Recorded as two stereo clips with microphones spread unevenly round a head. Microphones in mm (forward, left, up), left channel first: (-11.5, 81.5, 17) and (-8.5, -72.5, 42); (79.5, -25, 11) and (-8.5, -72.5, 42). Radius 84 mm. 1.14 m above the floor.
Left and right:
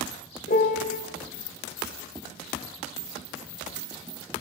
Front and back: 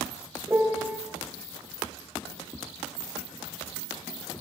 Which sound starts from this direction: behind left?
A piano, at 0.5 s.